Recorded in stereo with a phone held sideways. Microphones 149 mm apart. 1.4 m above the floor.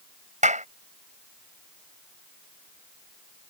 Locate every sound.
0.4 s a clap: 55° right (ahead or behind)